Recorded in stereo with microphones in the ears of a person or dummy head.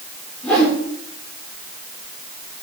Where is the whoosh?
Centre (ahead or behind), 2.0 m.